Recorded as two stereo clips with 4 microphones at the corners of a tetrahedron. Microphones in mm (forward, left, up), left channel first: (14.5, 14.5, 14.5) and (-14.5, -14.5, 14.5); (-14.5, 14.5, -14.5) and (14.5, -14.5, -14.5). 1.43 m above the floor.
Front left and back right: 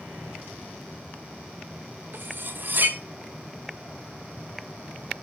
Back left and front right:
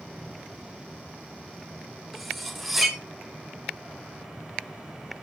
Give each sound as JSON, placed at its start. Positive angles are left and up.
{"t": 2.1, "sound": "cutlery clinking", "azimuth_deg": -135, "distance_m": 0.9}